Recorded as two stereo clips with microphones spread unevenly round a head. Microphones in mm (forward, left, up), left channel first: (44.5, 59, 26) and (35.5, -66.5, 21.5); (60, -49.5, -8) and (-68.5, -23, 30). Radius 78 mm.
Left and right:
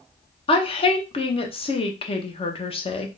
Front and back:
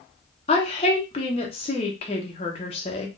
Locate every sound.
0.5 s a woman speaking: 40° left, 1.0 m